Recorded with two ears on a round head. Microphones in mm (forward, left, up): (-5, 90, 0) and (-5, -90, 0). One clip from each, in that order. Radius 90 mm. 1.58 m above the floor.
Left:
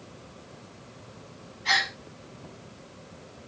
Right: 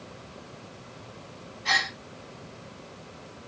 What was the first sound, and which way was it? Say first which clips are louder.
A gasp: even; 5° right (ahead or behind).